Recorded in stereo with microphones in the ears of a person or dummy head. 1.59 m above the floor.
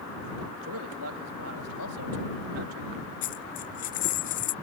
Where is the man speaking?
85° right; by 2.9 s 90° right.